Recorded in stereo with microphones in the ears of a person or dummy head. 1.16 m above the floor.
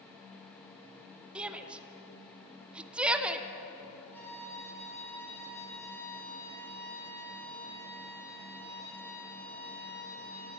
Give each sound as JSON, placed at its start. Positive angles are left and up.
{"t": 1.4, "sound": "a shout", "side_deg": -5, "distance_m": 0.5}
{"t": 4.1, "sound": "a violin", "side_deg": 10, "distance_m": 1.3}